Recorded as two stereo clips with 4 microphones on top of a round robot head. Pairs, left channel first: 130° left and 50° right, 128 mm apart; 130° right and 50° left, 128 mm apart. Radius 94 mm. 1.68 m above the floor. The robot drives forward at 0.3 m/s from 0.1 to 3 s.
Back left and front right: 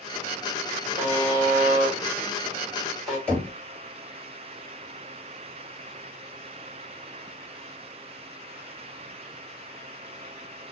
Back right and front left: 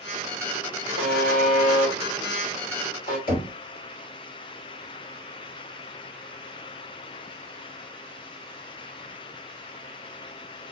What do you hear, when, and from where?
1.0 s a buzzer: 120° right, 1.2 m; by 3.2 s 140° right, 1.6 m
3.3 s knocking: 145° right, 1.3 m